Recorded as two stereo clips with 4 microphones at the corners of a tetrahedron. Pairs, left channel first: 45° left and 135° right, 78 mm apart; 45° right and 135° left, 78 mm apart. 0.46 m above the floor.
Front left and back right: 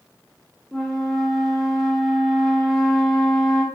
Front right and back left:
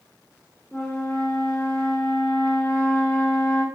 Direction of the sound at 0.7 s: 40° right.